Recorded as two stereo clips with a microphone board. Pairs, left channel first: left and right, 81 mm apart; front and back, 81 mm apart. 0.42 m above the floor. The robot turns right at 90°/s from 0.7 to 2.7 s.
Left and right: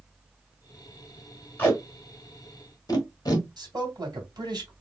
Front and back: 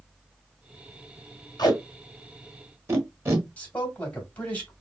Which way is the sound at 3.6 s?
70° right.